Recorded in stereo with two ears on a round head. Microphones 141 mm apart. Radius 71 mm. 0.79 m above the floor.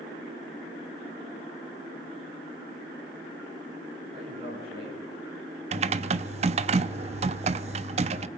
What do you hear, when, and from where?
4.1 s a man speaking: 40° right (ahead or behind), 9 m; by 5.6 s 35° right (ahead or behind), 9.5 m
5.7 s typing on a keyboard: 45° right (ahead or behind), 0.7 m